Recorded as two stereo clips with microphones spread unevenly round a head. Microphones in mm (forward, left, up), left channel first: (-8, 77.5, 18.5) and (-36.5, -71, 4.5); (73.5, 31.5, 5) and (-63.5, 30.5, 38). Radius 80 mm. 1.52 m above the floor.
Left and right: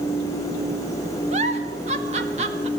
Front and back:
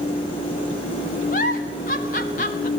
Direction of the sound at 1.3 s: 45° right.